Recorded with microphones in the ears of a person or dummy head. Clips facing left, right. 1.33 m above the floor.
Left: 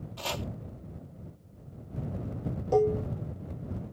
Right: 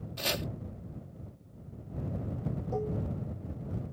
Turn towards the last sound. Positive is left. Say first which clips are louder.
# left 11 dB
turn(degrees=80)